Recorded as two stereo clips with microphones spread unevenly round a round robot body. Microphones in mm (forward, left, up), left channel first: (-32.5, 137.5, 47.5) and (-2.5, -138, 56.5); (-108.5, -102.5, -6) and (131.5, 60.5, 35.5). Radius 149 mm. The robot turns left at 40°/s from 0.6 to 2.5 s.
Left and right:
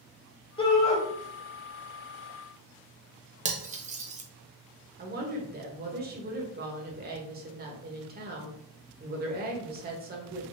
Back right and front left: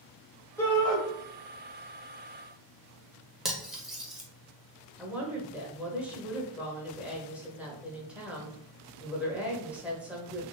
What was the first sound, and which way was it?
A shout, 150° left.